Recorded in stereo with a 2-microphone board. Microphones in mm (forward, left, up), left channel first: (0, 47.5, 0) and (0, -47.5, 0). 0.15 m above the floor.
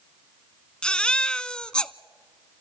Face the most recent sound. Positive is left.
turn(degrees=10)  # may be behind; listen again after turning